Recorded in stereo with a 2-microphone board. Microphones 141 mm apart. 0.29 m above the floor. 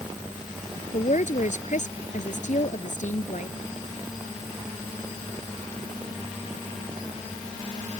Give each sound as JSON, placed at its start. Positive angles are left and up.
{"t": 0.9, "sound": "a woman speaking", "side_deg": 60}